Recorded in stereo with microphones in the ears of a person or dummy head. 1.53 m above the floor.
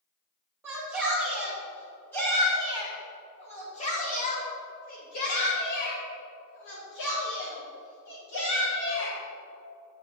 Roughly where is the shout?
Centre.